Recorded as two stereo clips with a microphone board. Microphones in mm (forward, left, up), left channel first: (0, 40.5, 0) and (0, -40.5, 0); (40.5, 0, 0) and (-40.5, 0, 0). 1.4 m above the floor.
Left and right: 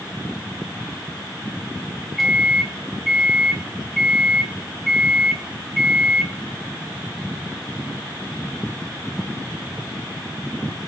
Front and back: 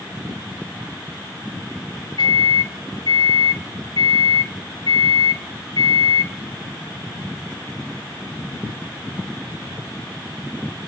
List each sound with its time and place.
2.2 s a microwave: straight ahead, 0.8 m